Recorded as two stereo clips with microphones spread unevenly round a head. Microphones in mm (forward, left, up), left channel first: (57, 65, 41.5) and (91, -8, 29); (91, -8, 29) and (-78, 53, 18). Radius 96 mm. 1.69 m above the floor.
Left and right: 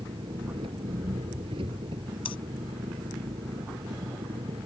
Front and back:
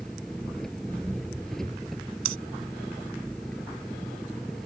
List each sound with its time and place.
0.0 s an engine running: 110° right
2.2 s breathing: 155° left